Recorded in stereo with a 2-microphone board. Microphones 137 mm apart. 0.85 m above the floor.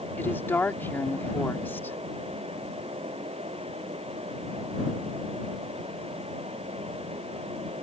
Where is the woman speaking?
15° left (ahead or behind).